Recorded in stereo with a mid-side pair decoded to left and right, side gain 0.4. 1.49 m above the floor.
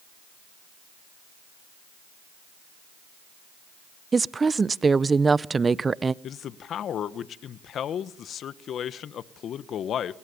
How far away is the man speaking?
About 1.2 m.